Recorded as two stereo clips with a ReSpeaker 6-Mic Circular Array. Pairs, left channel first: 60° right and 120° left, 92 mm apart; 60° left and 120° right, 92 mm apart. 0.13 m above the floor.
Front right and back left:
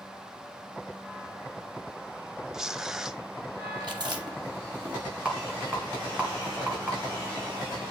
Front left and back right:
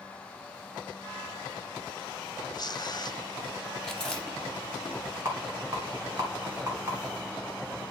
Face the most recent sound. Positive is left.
turn(degrees=-165)